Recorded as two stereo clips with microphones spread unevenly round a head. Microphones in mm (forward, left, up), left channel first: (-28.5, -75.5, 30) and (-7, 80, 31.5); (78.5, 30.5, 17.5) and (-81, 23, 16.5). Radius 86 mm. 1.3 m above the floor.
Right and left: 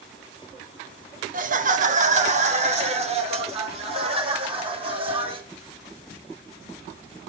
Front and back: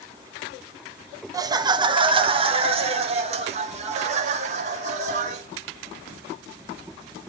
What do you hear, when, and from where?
1.3 s laughter: 115° left, 1.4 m; by 5.4 s 140° left, 4 m